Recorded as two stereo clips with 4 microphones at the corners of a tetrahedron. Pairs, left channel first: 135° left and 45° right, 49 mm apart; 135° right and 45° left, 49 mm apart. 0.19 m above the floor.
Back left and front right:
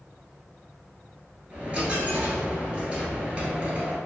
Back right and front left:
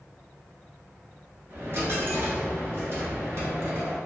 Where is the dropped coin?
15° left, 0.9 m.